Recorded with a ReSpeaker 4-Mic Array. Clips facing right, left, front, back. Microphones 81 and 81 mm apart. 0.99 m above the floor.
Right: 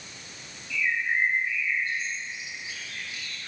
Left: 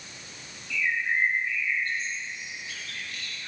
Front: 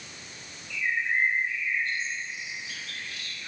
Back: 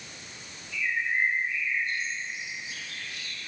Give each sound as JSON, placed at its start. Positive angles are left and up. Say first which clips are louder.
{"t": 0.7, "sound": "a bird", "louder": "even, front 1 dB", "azimuth_deg": -10, "distance_m": 6.0}